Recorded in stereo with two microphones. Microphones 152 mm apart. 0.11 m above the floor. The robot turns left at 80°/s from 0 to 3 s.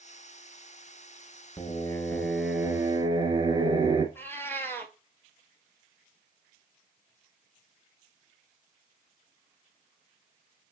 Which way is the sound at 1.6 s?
60° left.